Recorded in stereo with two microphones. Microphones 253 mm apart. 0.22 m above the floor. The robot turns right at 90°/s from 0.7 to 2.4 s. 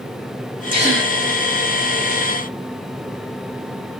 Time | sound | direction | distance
0.7 | a gasp | 150° right | 2.5 m